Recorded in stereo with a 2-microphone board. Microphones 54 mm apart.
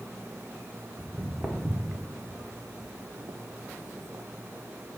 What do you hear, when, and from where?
1.0 s footsteps: 15° right (ahead or behind), 1.3 m; by 5.0 s 40° right (ahead or behind), 1.2 m